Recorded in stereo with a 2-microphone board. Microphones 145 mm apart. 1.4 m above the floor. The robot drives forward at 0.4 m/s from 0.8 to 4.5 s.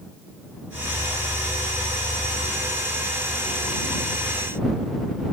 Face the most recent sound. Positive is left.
No sound to turn to.